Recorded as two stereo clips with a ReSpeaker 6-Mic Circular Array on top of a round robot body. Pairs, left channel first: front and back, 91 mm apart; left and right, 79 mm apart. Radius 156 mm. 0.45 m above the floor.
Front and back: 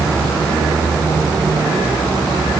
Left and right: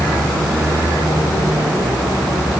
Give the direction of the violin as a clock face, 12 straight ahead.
I don't hear a violin.